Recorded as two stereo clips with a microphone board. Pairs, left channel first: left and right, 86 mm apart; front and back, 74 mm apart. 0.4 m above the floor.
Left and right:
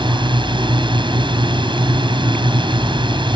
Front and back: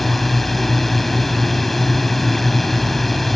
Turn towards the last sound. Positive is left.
turn(degrees=-90)